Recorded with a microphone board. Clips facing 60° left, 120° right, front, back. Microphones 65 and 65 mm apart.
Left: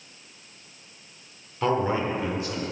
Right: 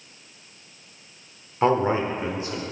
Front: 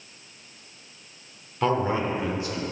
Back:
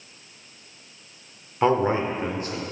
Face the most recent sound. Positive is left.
turn(degrees=-175)